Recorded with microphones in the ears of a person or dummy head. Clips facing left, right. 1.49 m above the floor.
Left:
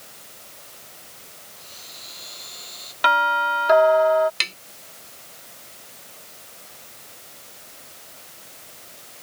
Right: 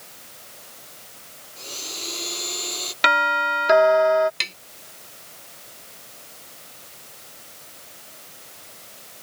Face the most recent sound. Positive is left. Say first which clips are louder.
# left 1 dB
turn(degrees=5)  # may be behind; listen again after turning